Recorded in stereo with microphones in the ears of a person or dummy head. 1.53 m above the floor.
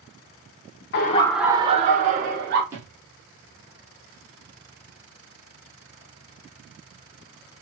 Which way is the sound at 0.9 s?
55° left (ahead or behind).